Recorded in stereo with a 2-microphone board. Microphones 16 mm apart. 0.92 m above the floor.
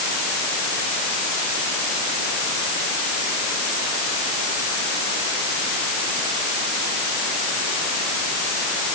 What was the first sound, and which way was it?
Only background noise.